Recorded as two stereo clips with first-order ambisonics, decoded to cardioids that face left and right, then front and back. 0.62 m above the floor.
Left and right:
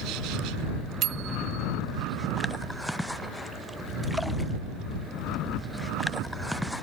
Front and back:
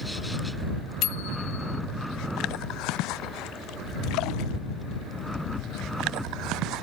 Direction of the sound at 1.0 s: 40° right.